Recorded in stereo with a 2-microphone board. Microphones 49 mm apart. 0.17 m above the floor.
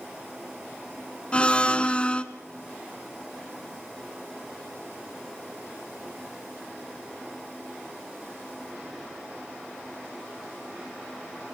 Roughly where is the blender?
Left.